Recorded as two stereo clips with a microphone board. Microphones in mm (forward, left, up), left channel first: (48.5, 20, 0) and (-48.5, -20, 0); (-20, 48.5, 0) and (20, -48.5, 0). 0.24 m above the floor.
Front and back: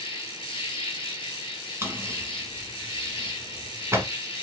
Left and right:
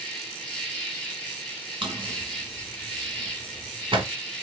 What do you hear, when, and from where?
0.0 s an insect: 30° left, 2 m
1.8 s a drawer: 95° right, 1.1 m